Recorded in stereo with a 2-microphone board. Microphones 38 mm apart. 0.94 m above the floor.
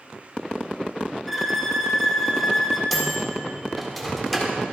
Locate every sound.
1.3 s a violin: 5° left (ahead or behind), 1.6 m
2.9 s a microwave: centre (ahead or behind), 1.7 m